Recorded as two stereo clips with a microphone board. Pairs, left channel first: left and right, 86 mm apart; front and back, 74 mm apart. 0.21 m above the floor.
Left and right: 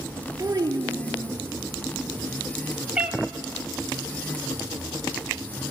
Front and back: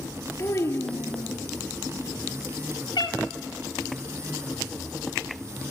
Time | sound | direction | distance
0.4 | a child speaking | 35° right | 2.5 m
3.0 | a cat meowing | 10° right | 1.8 m